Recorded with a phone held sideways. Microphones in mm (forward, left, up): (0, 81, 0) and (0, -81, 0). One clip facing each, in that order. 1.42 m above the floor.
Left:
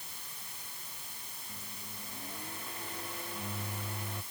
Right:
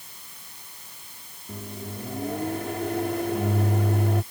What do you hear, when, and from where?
1.5 s a microwave: 80° right